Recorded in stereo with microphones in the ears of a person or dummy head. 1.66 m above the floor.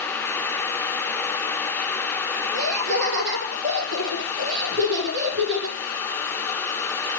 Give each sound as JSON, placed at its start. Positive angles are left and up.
{"t": 2.5, "sound": "laughter", "side_deg": -65, "distance_m": 2.5}